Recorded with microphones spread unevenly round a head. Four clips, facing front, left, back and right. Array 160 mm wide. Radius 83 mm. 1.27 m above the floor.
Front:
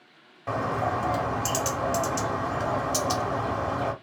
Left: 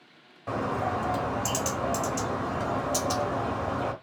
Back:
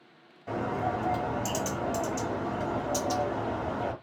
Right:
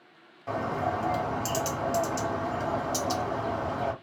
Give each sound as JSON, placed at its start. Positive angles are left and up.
{"t": 0.5, "sound": "a bird", "azimuth_deg": 0, "distance_m": 1.4}